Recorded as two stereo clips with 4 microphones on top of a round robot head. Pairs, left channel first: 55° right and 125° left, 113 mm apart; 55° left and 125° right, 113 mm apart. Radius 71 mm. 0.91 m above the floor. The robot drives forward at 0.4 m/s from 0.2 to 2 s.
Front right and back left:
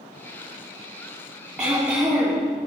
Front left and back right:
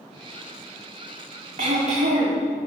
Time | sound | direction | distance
1.6 | throat clearing | 150° right | 5 m